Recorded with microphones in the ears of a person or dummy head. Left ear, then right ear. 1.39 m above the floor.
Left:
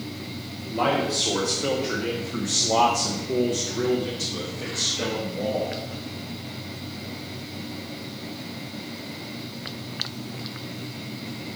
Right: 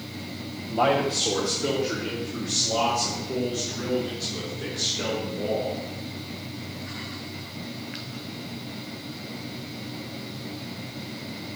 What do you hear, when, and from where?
0.7 s a man speaking: 15° right (ahead or behind), 1.1 m; by 5.8 s 85° left, 2.5 m